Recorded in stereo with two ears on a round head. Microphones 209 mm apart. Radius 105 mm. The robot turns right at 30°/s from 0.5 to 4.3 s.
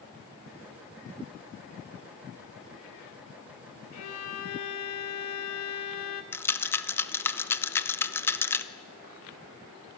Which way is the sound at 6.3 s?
10° left (ahead or behind).